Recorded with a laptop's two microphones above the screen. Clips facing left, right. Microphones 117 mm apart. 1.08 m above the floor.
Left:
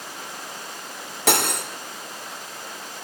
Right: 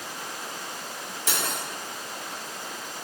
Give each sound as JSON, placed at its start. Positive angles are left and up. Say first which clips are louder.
{"t": 1.3, "sound": "cutlery clinking", "louder": "left 9 dB", "side_deg": 70, "distance_m": 1.6}